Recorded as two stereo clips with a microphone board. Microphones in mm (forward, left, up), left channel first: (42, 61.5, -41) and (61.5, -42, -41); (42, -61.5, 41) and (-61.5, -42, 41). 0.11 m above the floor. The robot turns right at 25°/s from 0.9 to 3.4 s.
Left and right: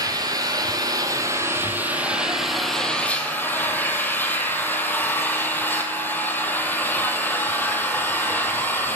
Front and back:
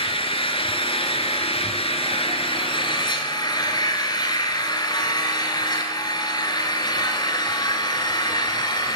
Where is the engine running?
30° right, 1.1 m; by 9.0 s 30° left, 1.1 m.